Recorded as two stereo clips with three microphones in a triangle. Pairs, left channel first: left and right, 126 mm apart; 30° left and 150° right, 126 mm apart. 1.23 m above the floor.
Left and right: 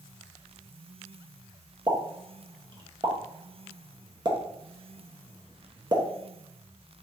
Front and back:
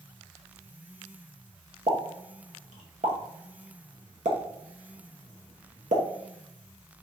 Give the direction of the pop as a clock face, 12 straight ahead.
5 o'clock.